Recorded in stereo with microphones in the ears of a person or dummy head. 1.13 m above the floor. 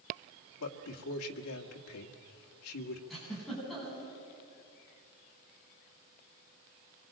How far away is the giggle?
About 9 m.